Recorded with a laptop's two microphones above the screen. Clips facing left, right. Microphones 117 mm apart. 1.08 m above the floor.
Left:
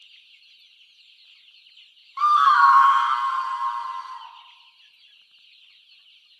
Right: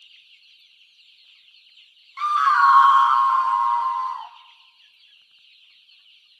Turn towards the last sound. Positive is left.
turn(degrees=-65)  # may be behind; listen again after turning